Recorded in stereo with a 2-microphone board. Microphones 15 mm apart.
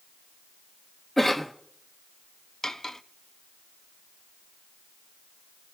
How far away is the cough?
About 1.1 m.